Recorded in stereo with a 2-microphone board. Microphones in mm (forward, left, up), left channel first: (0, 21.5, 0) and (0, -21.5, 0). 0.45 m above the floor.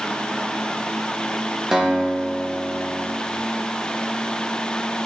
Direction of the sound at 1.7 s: 10° right (ahead or behind).